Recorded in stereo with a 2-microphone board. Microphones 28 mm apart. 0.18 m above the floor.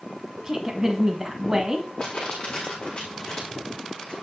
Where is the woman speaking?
25° right (ahead or behind), 1.1 m.